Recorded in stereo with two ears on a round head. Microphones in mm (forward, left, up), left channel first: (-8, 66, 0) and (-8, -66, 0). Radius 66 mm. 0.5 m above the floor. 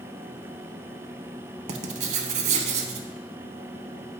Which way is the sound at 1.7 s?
45° right (ahead or behind).